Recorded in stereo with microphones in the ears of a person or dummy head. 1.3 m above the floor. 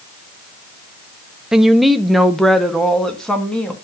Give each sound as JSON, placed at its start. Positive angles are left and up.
{"t": 1.5, "sound": "a woman speaking", "side_deg": -5, "distance_m": 0.6}